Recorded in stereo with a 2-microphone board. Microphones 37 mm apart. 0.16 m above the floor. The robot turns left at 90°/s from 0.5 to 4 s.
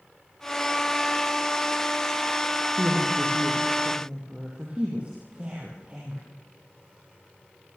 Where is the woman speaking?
35° right (ahead or behind), 6 m.